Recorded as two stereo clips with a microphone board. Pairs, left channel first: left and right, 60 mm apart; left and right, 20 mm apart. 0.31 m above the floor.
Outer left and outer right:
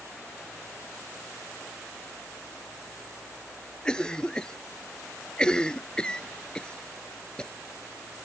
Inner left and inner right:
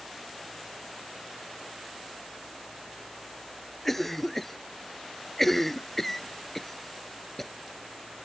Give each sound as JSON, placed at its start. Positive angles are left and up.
{"t": 3.9, "sound": "a cough", "side_deg": 15}